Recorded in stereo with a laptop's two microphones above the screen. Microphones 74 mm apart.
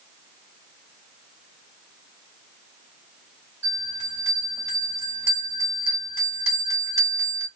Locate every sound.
3.6 s a bell: 35° right (ahead or behind), 2 m